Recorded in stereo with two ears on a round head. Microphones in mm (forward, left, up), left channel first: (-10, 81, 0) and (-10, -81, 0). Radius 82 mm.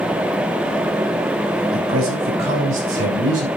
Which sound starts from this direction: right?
A man speaking, at 1.7 s.